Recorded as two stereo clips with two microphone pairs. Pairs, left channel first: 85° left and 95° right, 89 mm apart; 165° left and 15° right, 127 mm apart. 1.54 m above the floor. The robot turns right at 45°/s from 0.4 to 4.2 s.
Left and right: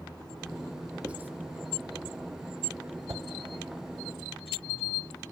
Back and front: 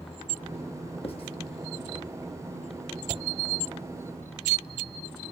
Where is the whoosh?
45° right, 1.0 m; by 3.2 s 40° right, 1.0 m.